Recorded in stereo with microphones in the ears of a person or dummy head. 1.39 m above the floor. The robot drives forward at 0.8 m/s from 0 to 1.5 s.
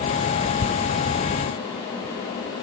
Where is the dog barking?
No dog barking in this recording.